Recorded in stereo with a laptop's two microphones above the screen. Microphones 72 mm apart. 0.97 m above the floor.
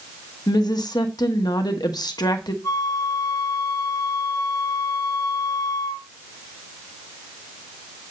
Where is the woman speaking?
65° left (ahead or behind), 1.1 m.